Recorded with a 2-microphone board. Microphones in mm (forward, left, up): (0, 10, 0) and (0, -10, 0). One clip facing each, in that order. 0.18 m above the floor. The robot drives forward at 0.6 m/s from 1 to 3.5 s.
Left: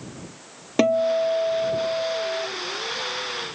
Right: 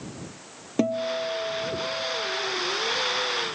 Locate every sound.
0.8 s a guitar: 45° left (ahead or behind); by 2.5 s 50° left (ahead or behind)